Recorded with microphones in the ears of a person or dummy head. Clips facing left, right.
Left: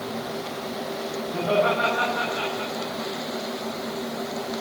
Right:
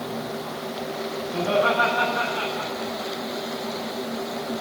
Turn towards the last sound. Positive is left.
turn(degrees=-45)  # may be behind; listen again after turning